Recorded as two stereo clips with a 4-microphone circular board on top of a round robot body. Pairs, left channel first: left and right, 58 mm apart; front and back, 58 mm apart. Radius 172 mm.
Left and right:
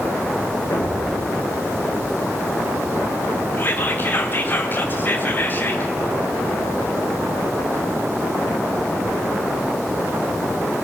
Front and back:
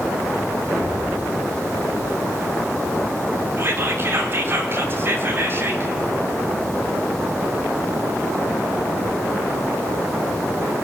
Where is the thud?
115° left, 5 m.